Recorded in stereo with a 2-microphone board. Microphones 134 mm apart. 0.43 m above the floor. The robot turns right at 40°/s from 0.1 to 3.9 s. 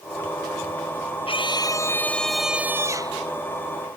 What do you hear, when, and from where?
1.3 s a scream: 135° left; by 3.2 s 145° right